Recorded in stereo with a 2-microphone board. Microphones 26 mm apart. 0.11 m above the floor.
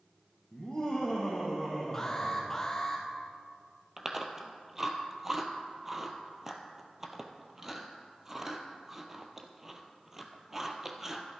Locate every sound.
0.5 s laughter: 30° left (ahead or behind), 3 m; by 2.7 s 25° left (ahead or behind), 4 m
1.9 s an alarm: 25° left (ahead or behind), 2.5 m
4.0 s chewing: 10° right (ahead or behind), 1.3 m